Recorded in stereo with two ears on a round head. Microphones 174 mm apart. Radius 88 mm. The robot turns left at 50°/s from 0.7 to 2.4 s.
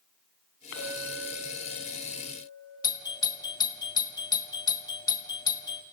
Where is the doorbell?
20° left (ahead or behind), 1.2 m.